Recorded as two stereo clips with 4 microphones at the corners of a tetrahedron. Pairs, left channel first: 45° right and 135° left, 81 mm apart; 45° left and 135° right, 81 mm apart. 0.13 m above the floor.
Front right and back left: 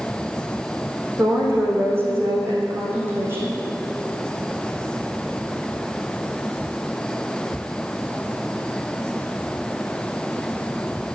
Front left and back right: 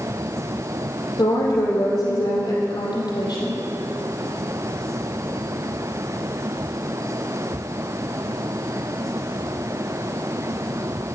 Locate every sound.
1.2 s a woman speaking: 75° left, 4.5 m